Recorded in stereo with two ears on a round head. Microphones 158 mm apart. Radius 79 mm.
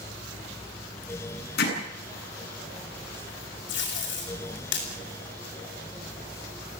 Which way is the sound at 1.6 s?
60° left (ahead or behind).